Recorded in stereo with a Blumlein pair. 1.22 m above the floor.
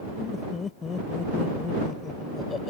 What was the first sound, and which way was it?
Laughter, 20° left.